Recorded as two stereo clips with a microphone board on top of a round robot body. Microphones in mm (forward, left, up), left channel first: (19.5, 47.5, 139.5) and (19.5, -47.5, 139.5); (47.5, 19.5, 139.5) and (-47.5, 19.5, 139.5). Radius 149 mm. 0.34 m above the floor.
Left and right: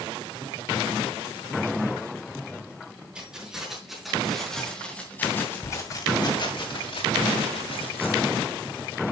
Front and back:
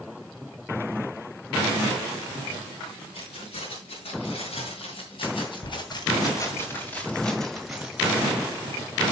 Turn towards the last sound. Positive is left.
turn(degrees=100)